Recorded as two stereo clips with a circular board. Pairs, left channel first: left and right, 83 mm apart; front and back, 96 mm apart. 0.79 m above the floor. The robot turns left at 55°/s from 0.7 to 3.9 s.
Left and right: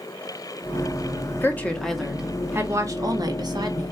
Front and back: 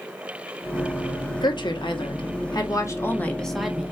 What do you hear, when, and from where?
1.4 s a woman speaking: 30° left, 1.4 m; by 3.9 s 105° right, 1.4 m